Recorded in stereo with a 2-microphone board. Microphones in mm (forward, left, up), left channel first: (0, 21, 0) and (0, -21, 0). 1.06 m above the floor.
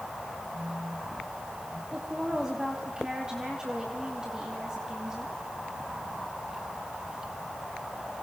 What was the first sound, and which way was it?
A phone buzzing, 70° right (ahead or behind).